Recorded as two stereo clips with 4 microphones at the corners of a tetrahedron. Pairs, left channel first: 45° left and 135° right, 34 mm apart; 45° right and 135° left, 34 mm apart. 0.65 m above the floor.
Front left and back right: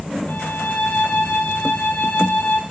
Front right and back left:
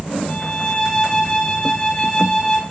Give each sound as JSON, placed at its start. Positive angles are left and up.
{"t": 0.3, "sound": "a violin", "azimuth_deg": 15, "distance_m": 3.0}